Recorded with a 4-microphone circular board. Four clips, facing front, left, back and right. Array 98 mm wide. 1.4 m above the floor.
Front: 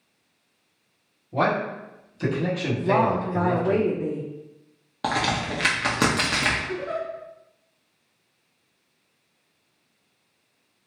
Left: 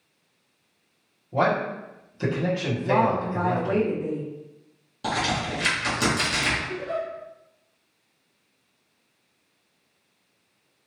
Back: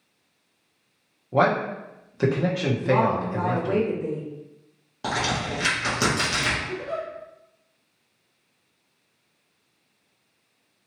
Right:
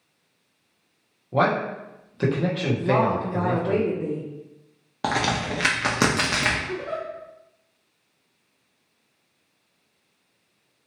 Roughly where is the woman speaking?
Ahead right.